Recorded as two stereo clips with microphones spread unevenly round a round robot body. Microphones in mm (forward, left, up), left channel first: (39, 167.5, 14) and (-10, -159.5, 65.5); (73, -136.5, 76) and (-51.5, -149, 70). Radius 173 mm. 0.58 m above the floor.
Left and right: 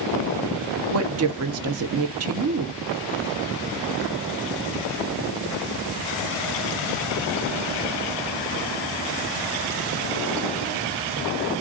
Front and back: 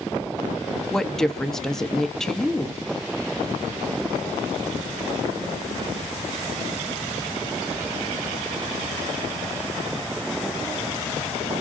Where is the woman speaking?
80° right, 0.6 m.